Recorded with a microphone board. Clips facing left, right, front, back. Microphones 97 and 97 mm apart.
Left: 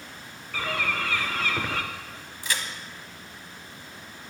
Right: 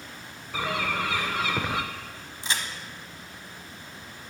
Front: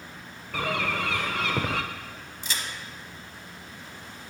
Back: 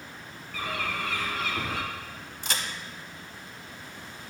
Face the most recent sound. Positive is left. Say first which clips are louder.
# even, back 2 dB
turn(degrees=-155)